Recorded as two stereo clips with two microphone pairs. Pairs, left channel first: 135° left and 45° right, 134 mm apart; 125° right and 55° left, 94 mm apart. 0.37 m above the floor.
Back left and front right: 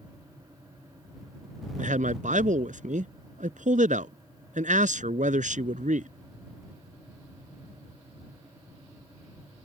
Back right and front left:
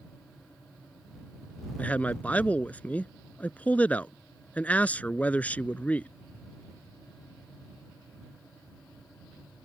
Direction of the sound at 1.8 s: 50° right.